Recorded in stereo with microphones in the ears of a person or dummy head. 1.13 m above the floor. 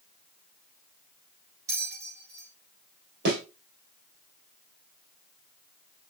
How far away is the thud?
About 4 m.